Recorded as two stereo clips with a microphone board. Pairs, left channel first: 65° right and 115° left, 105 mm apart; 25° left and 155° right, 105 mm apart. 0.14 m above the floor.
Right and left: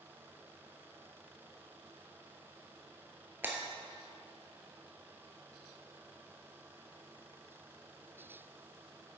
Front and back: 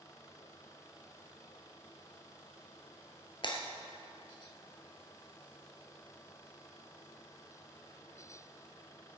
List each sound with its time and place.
3.4 s breaking glass: 45° left, 1.2 m